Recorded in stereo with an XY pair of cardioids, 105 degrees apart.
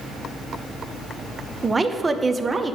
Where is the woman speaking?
20° right, 0.8 m.